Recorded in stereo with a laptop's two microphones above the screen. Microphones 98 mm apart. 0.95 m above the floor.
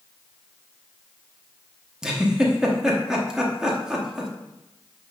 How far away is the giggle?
About 1.0 m.